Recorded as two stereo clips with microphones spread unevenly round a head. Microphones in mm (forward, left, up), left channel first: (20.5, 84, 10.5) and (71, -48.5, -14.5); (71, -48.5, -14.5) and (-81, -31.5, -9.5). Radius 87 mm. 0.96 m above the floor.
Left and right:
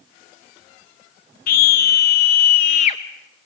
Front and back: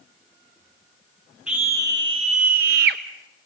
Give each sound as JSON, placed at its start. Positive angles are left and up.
{"t": 1.5, "sound": "a scream", "azimuth_deg": 90, "distance_m": 0.8}